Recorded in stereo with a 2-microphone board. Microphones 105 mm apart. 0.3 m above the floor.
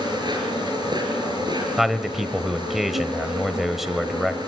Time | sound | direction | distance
0.0 | an insect | 45° right (ahead or behind) | 6 m
1.8 | a man speaking | centre (ahead or behind) | 1.3 m